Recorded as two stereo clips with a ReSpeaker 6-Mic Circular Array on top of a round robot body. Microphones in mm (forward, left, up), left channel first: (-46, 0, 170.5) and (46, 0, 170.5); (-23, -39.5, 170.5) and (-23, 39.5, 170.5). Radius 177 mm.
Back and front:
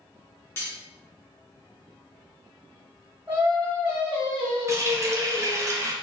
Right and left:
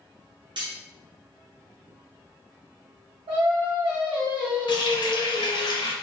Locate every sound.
0.6 s cutlery clinking: 115° left, 1.5 m
3.3 s singing: 80° left, 2 m
4.7 s a running tap: 60° right, 0.6 m